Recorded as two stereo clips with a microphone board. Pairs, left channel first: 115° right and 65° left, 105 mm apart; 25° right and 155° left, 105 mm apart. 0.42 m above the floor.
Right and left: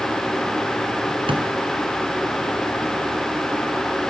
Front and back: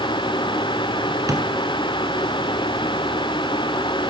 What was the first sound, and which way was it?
A drawer, 100° left.